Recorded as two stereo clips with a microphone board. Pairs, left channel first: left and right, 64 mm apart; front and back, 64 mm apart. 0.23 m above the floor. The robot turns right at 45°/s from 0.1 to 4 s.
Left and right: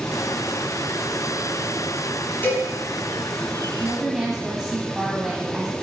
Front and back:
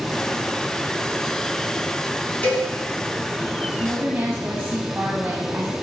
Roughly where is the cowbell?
Ahead left.